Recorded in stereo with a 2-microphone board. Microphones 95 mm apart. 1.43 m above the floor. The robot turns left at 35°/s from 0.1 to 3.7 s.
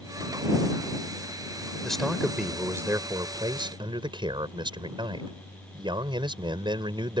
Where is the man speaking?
5° left; by 7.2 s 60° right.